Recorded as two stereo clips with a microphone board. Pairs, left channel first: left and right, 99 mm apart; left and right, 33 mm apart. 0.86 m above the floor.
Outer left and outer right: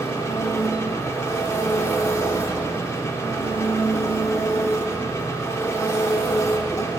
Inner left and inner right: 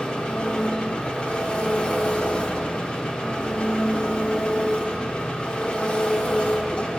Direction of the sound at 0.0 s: 30° left (ahead or behind).